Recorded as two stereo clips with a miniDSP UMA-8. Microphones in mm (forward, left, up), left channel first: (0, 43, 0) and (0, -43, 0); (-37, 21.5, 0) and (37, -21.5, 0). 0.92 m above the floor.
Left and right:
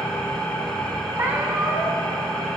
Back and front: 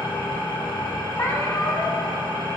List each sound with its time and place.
0.0 s an engine running: 170° left, 3.5 m
1.1 s a cat meowing: 150° right, 2.5 m